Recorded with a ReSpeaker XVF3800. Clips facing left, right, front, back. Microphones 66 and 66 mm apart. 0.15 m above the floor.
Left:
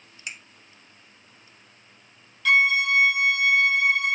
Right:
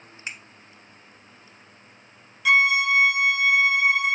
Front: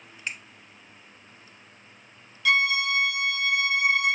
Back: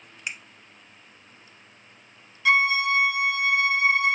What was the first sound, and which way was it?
A finger snap, 110° right.